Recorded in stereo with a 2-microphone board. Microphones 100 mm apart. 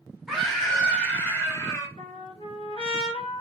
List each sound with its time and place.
0.3 s a scream: 5° right (ahead or behind), 1.6 m; by 1.9 s 30° left (ahead or behind), 1.6 m
2.0 s a trumpet: 60° left (ahead or behind), 1.4 m